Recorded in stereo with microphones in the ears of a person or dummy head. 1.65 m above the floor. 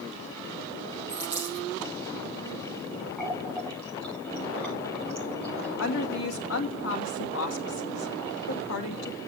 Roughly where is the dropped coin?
Centre.